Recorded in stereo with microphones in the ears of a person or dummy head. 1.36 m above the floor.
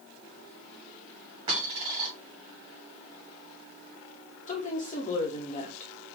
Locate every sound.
1.5 s a dropped coin: 30° right (ahead or behind), 2.5 m
4.5 s a woman speaking: 40° left (ahead or behind), 1.3 m